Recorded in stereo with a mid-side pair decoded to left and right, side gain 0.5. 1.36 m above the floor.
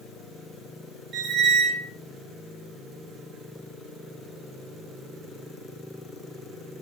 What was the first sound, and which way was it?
A squeak, 50° right.